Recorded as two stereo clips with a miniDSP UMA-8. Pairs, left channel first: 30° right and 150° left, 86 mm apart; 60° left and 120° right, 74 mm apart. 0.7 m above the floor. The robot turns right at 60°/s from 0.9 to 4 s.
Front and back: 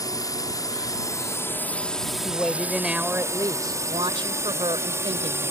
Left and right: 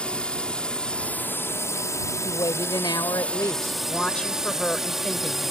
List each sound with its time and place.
0.0 s a drone: 10° right; by 5.5 s 155° left
2.2 s a woman speaking: 30° left; by 5.5 s 135° left